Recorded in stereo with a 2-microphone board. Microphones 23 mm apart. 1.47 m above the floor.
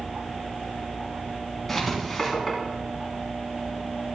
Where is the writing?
5° left (ahead or behind), 3.5 m.